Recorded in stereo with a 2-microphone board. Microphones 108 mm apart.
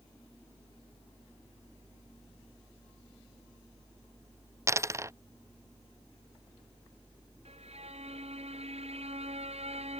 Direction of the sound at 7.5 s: 70° right (ahead or behind).